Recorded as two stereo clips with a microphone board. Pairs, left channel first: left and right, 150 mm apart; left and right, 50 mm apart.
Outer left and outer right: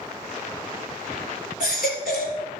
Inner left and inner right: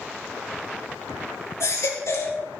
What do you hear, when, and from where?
1.6 s a baby crying: 75° left (ahead or behind), 3.5 m